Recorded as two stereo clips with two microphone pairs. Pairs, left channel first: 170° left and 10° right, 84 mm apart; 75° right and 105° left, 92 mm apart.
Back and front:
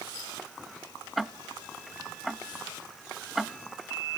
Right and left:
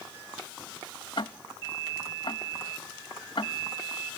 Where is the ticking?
100° right, 0.8 m.